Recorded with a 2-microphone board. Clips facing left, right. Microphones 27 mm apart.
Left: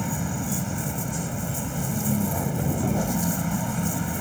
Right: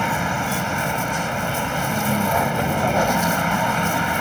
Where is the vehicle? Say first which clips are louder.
Right 8 dB; 55° right (ahead or behind).